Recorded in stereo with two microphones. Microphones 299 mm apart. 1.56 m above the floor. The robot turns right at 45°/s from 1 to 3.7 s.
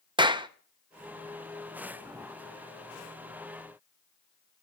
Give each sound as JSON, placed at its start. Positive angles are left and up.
{"t": 0.2, "sound": "a clap", "side_deg": -15, "distance_m": 0.6}